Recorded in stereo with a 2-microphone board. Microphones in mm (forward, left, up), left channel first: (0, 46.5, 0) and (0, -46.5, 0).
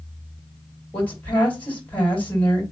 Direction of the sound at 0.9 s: 20° left (ahead or behind).